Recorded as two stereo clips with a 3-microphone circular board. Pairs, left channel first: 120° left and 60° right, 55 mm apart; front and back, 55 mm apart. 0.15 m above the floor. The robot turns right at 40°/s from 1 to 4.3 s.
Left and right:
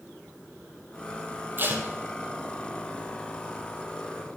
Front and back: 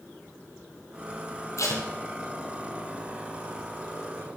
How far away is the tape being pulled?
About 1.7 m.